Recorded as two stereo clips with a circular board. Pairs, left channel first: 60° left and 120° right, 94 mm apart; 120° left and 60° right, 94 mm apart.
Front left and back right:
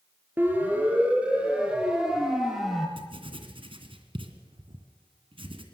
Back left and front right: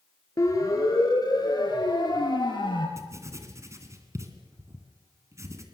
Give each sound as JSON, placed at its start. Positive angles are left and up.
{"t": 0.4, "sound": "a siren", "azimuth_deg": 175, "distance_m": 5.0}
{"t": 3.0, "sound": "writing", "azimuth_deg": -115, "distance_m": 2.5}